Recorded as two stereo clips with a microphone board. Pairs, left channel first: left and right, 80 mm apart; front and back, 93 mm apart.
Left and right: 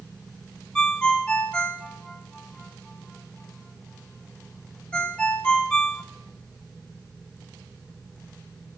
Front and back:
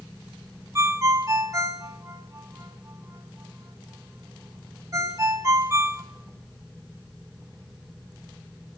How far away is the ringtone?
About 0.6 m.